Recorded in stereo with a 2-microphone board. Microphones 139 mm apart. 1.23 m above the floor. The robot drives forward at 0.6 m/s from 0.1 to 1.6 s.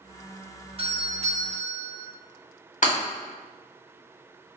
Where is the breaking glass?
60° left (ahead or behind), 1.4 m.